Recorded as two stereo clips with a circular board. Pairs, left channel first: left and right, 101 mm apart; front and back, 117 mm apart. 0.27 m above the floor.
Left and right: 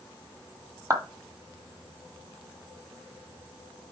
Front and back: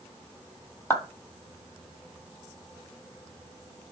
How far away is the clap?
About 1.4 m.